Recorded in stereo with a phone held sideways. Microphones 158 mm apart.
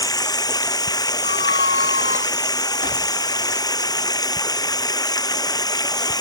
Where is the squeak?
65° right (ahead or behind).